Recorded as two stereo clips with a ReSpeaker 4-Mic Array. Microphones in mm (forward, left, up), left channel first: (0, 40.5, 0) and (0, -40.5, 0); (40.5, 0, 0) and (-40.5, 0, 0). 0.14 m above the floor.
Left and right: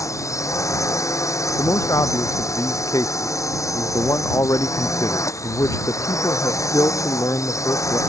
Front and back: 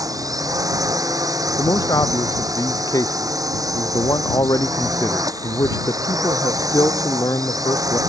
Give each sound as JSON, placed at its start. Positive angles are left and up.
{"t": 0.0, "sound": "a drone", "azimuth_deg": 140}
{"t": 1.6, "sound": "a man speaking", "azimuth_deg": 45}